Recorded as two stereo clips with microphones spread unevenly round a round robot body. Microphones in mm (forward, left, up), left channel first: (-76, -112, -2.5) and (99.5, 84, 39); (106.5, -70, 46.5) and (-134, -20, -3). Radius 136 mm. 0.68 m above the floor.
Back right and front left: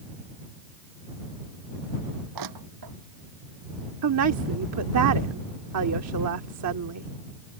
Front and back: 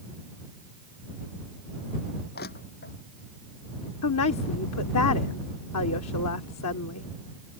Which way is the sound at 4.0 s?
25° left.